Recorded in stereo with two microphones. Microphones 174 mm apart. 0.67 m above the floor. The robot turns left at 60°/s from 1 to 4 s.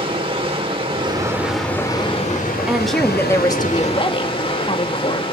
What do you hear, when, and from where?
0.0 s running water: 145° right, 2 m; by 5.3 s 35° left, 2 m
2.7 s a woman speaking: 170° right, 1.0 m; by 5.2 s 110° left, 1.0 m